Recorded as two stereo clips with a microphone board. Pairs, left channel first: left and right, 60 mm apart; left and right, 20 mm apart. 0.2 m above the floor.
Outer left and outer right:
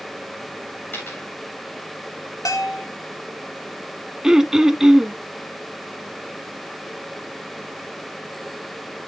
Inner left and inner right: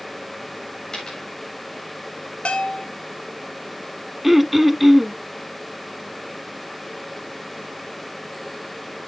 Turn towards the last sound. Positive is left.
turn(degrees=-10)  # may be behind; listen again after turning